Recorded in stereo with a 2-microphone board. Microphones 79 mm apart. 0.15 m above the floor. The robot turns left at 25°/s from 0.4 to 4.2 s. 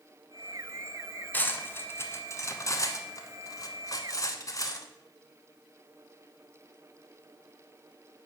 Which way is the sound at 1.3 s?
20° left (ahead or behind).